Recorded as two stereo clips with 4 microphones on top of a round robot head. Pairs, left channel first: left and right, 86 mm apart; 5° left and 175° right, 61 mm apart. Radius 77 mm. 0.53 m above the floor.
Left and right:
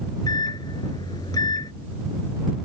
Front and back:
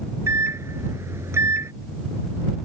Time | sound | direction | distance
0.3 | a microwave | 140° left | ?